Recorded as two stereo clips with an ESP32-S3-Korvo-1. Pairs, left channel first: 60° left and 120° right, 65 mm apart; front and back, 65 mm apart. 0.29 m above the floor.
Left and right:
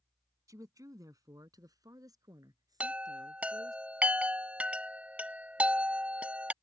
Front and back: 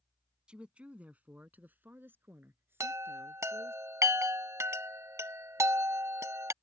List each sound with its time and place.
0.5 s a woman speaking: 105° right; by 3.8 s 130° right
2.8 s a chime: straight behind